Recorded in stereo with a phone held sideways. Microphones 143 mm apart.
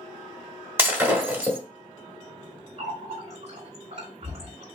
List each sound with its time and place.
0.8 s breaking glass: 15° right (ahead or behind), 1.1 m
2.8 s a running tap: 45° right (ahead or behind), 2 m